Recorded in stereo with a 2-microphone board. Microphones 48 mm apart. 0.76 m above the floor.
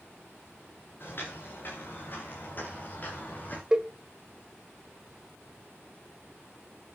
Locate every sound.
1.0 s footsteps: 50° left (ahead or behind), 6.5 m; by 3.6 s 35° left (ahead or behind), 6.5 m
3.7 s a cowbell: 20° right (ahead or behind), 1.1 m